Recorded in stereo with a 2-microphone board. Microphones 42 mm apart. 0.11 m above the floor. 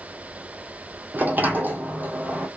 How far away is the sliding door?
About 1.0 m.